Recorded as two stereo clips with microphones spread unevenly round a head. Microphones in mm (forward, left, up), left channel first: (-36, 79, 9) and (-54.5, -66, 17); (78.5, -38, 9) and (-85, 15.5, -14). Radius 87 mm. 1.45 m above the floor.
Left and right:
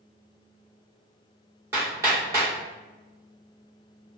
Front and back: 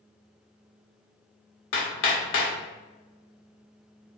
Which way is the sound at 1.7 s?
25° right.